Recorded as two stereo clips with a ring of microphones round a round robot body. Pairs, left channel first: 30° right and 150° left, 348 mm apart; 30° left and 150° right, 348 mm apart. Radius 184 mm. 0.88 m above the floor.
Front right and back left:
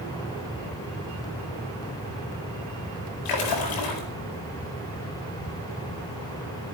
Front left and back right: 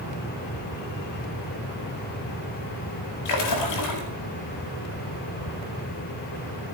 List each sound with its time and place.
3.2 s a splash: 5° right, 4.5 m